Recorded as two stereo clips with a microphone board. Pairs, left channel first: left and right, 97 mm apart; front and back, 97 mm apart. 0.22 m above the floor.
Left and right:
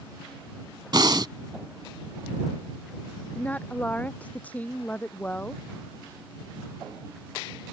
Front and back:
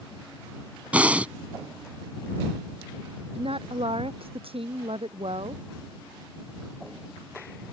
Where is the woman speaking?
165° left.